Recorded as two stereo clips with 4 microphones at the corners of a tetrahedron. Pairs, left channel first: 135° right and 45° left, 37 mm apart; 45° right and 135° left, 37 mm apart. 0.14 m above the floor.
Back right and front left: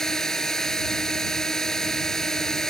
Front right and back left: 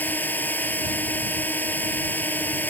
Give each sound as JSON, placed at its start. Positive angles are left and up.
{"t": 0.0, "sound": "a drone", "azimuth_deg": -60}